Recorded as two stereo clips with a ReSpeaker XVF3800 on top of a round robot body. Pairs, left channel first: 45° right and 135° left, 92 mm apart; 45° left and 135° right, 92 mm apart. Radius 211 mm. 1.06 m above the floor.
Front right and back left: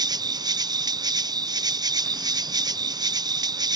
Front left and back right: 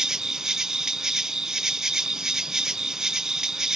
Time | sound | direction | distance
0.0 | an insect | 145° left | ?